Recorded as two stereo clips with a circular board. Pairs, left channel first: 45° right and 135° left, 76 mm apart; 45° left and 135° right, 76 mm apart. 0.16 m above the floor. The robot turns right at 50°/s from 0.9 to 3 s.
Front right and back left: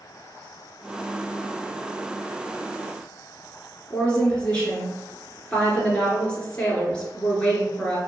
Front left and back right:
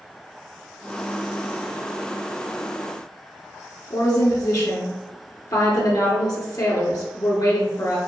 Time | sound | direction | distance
3.9 | a woman speaking | 25° left | 2 m